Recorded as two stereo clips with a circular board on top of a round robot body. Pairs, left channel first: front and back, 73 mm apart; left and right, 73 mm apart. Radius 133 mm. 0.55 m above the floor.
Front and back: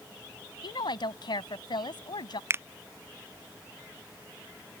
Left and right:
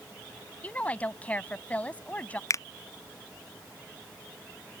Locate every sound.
0.6 s a woman speaking: 20° left
2.5 s a finger snap: 130° left